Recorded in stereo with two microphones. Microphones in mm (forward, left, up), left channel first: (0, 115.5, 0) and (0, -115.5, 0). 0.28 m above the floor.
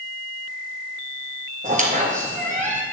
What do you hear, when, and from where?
1.6 s a squeak: 35° right (ahead or behind), 1.9 m